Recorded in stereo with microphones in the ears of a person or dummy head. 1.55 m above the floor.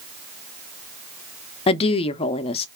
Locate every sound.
1.7 s a woman speaking: 35° left (ahead or behind), 0.5 m